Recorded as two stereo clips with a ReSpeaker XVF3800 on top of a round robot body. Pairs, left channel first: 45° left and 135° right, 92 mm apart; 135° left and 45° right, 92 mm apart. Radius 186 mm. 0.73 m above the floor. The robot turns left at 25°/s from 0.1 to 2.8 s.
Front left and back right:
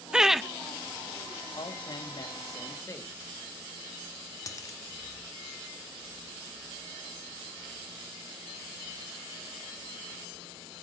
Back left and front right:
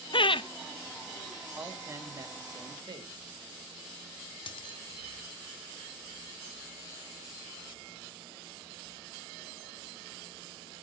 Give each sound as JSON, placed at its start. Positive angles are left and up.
{"t": 0.1, "sound": "laughter", "azimuth_deg": 145, "distance_m": 0.7}
{"t": 1.6, "sound": "a man speaking", "azimuth_deg": 20, "distance_m": 2.0}
{"t": 4.5, "sound": "a dropped coin", "azimuth_deg": 100, "distance_m": 0.6}